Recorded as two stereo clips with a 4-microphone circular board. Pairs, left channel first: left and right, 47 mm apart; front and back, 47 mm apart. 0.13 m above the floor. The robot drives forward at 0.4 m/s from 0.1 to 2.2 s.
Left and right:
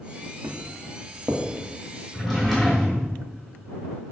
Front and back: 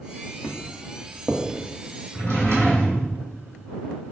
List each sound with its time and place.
0.4 s footsteps: 75° right, 0.7 m; by 1.4 s 105° right, 0.7 m
2.1 s a drawer: 175° right, 1.3 m